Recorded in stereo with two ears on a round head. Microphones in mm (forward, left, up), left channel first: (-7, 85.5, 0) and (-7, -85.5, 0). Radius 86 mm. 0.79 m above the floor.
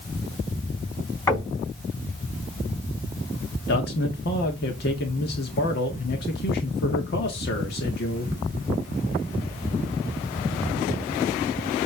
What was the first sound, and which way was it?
Knocking, 20° left (ahead or behind).